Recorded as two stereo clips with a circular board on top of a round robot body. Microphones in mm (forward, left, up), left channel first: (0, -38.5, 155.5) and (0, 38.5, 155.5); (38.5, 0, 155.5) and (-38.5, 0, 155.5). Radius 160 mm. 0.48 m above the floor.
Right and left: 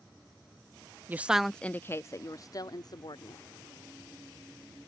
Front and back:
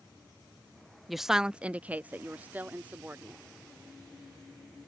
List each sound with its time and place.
1.1 s a woman speaking: 90° left; by 3.4 s 115° right